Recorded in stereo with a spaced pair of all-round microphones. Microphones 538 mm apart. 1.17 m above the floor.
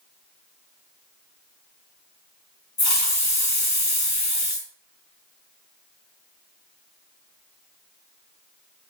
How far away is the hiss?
About 0.7 m.